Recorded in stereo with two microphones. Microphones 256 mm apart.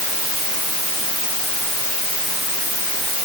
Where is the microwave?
I don't hear a microwave.